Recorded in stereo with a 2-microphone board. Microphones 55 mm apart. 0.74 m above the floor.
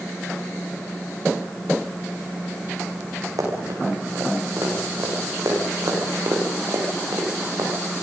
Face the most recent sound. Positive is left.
turn(degrees=-85)